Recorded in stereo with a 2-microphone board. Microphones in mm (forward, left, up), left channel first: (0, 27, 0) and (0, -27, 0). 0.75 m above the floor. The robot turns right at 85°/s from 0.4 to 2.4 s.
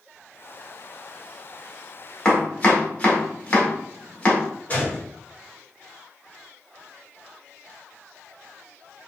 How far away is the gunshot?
About 2 m.